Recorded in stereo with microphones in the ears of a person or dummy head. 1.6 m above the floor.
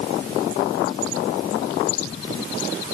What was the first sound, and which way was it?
Only background noise.